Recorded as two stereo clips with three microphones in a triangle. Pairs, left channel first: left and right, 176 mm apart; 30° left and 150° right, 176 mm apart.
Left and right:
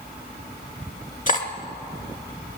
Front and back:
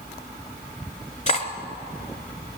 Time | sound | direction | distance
1.3 | cutlery clinking | 65° left | 1.1 m